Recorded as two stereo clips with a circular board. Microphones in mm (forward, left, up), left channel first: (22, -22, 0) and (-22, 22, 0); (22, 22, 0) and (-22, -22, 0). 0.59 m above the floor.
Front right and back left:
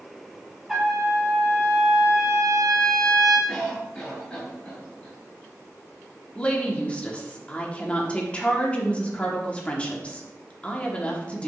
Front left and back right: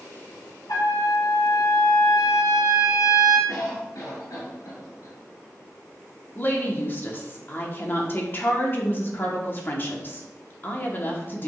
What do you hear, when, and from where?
0.7 s a trumpet: 50° left, 3 m
3.5 s a cough: 25° left, 3.5 m
6.3 s a woman speaking: 15° left, 1.4 m